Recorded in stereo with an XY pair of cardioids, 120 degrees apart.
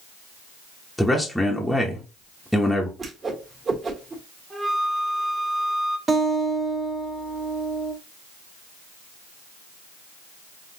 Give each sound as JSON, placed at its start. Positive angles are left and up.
{"t": 1.0, "sound": "a man speaking", "azimuth_deg": 5, "distance_m": 1.0}
{"t": 3.0, "sound": "a whoosh", "azimuth_deg": -30, "distance_m": 1.8}
{"t": 4.5, "sound": "a flute", "azimuth_deg": -25, "distance_m": 2.5}
{"t": 6.1, "sound": "a guitar", "azimuth_deg": -35, "distance_m": 1.8}